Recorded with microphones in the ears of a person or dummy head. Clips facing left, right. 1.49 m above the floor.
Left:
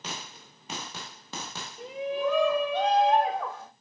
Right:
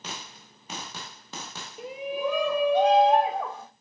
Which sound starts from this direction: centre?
A shout, at 1.8 s.